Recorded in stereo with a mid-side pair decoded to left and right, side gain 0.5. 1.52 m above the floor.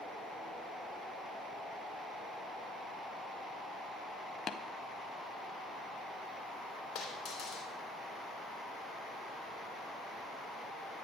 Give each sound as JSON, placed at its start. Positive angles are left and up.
{"t": 4.5, "sound": "tapping", "azimuth_deg": 50, "distance_m": 0.7}
{"t": 7.0, "sound": "a dropped coin", "azimuth_deg": 60, "distance_m": 3.0}